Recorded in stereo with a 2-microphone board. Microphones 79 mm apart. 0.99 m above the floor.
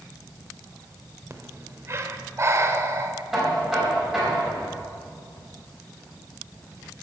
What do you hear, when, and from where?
1.3 s breathing: 35° right (ahead or behind), 0.8 m
3.3 s knocking: 5° right (ahead or behind), 4.5 m